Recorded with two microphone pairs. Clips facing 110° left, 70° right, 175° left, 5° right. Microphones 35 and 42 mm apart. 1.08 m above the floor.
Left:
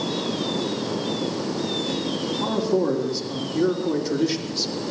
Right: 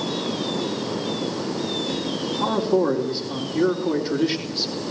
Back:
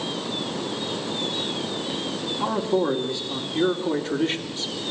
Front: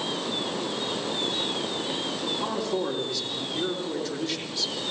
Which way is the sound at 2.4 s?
115° right.